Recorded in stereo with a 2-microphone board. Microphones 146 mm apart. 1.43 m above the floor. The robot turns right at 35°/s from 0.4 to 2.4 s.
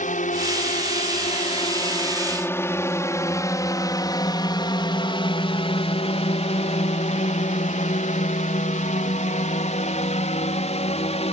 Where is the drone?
75° left (ahead or behind); by 11.3 s 50° left (ahead or behind).